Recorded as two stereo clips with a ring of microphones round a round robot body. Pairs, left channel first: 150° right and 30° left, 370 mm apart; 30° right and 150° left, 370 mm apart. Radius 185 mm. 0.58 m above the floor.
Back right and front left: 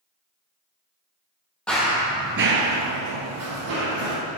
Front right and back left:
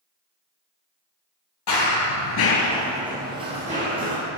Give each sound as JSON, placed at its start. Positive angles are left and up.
{"t": 1.7, "sound": "running footsteps", "azimuth_deg": -65, "distance_m": 1.1}